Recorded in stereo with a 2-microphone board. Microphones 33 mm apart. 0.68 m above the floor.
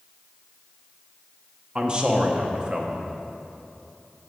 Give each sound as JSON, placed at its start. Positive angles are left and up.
{"t": 1.8, "sound": "a man speaking", "side_deg": -25, "distance_m": 0.8}